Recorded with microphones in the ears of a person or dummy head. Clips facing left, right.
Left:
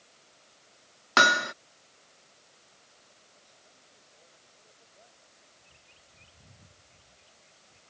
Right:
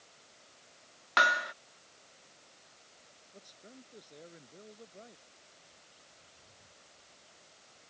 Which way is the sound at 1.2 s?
50° left (ahead or behind).